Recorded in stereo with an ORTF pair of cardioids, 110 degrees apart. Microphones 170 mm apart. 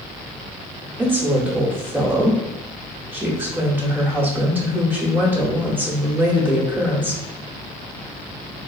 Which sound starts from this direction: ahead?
A woman speaking, at 1.0 s.